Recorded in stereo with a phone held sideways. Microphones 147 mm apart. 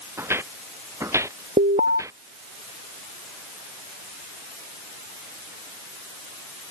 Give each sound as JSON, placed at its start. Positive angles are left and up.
{"t": 0.2, "sound": "footsteps", "side_deg": -15}
{"t": 1.6, "sound": "an alarm", "side_deg": -55}